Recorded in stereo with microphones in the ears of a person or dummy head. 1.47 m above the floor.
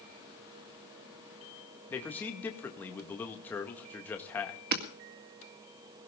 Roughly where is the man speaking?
Centre.